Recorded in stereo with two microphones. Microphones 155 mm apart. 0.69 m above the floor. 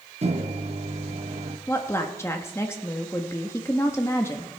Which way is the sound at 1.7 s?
15° left (ahead or behind).